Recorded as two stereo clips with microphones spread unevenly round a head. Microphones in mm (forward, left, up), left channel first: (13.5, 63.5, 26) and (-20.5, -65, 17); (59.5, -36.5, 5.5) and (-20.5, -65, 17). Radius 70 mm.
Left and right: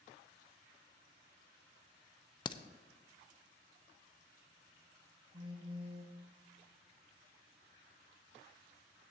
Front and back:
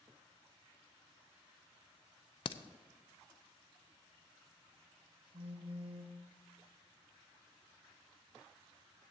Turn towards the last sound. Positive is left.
turn(degrees=-160)